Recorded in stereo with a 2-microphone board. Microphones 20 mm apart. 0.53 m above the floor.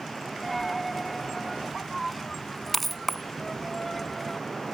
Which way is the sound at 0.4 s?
10° left (ahead or behind).